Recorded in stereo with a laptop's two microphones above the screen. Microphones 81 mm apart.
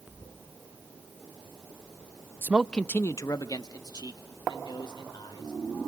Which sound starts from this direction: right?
A man speaking, at 2.4 s.